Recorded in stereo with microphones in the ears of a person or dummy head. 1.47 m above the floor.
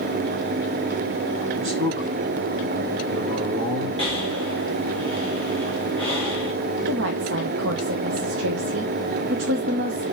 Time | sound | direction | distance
1.6 | a man speaking | 70° right (ahead or behind) | 2 m
4.0 | breathing | 30° right (ahead or behind) | 1.8 m
6.9 | a woman speaking | 75° right (ahead or behind) | 1.0 m